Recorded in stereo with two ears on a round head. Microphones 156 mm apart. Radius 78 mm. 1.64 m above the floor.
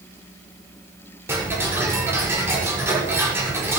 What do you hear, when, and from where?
1.3 s ticking: 15° right (ahead or behind), 6.5 m